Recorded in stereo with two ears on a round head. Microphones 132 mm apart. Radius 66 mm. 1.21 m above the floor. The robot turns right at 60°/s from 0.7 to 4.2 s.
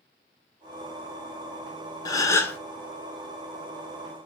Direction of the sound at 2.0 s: 25° left (ahead or behind).